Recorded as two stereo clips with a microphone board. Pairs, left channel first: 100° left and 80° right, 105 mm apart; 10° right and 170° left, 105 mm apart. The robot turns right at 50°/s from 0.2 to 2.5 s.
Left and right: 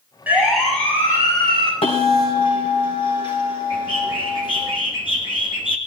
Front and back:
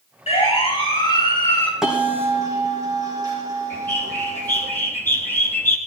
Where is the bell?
85° left, 6 m; by 4.7 s 120° left, 6 m.